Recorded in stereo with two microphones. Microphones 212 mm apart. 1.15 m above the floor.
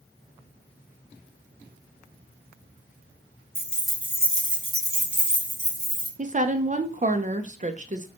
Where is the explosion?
I don't hear an explosion.